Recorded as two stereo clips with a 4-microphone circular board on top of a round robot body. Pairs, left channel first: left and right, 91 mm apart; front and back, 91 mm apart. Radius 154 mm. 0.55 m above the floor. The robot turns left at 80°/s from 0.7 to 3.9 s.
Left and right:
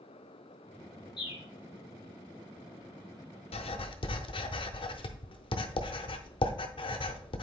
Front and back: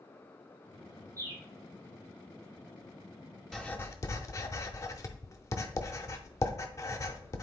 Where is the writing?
85° left, 0.6 m; by 7.4 s 55° left, 0.6 m.